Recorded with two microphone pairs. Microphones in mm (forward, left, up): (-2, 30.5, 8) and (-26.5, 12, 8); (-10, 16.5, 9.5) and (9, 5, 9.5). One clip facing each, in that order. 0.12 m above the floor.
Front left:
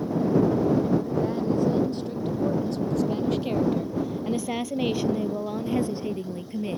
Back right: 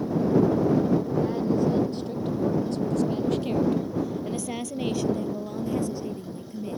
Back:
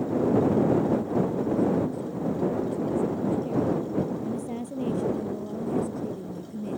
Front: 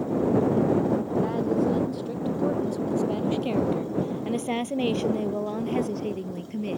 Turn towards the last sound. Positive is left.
turn(degrees=-5)